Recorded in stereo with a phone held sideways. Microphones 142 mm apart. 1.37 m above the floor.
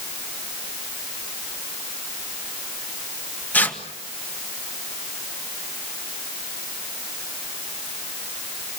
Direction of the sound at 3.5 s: 10° left (ahead or behind).